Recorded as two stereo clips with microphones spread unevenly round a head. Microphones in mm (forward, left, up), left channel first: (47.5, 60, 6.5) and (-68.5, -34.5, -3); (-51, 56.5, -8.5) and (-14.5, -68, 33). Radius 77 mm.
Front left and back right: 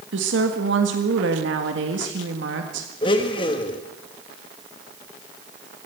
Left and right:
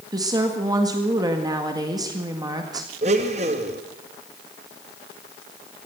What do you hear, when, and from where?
0.1 s a woman speaking: 135° right, 1.8 m
3.0 s a blender: 25° right, 1.7 m